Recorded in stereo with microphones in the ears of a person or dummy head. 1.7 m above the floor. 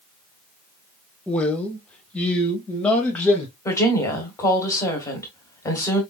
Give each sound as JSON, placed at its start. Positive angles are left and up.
{"t": 1.3, "sound": "a man speaking", "side_deg": 5, "distance_m": 1.2}
{"t": 3.6, "sound": "a woman speaking", "side_deg": 20, "distance_m": 1.4}